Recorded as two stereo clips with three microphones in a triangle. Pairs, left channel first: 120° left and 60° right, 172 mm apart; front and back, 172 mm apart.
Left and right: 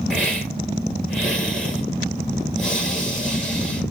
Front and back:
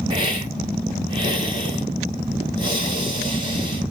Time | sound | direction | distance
0.1 | a hiss | 155° right | 1.9 m